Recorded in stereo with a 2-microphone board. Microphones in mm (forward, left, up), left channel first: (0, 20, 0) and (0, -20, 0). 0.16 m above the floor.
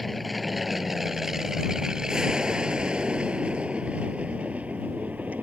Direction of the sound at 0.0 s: Centre (ahead or behind).